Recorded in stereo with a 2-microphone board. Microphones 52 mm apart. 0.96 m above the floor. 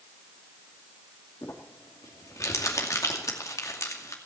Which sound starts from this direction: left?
Crumpling, at 1.4 s.